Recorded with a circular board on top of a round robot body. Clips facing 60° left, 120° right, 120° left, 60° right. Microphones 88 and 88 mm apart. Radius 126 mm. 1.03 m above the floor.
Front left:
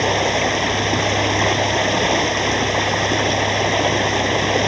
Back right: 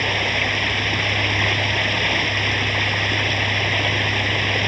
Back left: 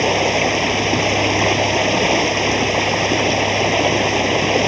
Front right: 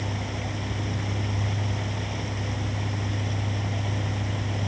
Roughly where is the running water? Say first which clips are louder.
Front left 6 dB, back left 16 dB; behind left.